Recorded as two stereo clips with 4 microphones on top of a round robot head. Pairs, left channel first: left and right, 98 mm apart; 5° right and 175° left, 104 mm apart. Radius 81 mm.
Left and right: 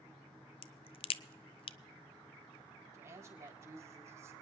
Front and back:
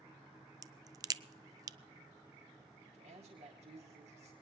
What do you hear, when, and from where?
0.6 s a crack: 120° left, 0.5 m
2.9 s a woman speaking: 150° right, 3.5 m